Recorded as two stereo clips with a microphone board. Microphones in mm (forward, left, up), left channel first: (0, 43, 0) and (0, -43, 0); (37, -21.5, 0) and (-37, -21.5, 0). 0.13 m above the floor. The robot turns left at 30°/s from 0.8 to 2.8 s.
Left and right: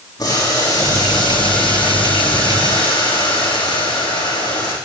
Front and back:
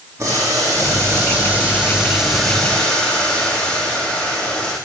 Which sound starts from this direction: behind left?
Boiling, at 0.2 s.